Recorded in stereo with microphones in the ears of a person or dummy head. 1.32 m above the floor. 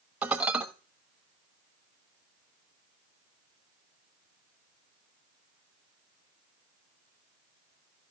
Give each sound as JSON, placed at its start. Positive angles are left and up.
{"t": 0.2, "sound": "dishes clattering", "side_deg": -10, "distance_m": 1.1}